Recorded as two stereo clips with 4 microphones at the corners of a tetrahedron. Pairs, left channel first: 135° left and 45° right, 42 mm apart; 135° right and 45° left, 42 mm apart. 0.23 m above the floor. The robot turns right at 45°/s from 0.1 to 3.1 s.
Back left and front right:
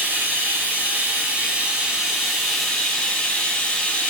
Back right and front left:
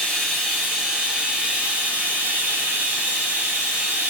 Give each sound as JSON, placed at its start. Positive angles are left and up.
{"t": 0.0, "sound": "running water", "azimuth_deg": -60, "distance_m": 1.0}